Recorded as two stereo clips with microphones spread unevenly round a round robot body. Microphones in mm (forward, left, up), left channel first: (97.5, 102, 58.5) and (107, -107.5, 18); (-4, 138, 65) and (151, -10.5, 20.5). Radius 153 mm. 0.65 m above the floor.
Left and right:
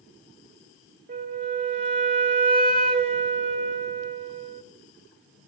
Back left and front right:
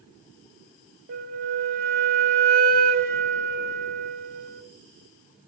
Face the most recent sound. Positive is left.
turn(degrees=-100)